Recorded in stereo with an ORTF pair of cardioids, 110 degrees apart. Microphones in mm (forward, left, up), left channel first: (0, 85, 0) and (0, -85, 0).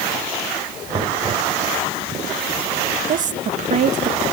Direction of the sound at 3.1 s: 50° right.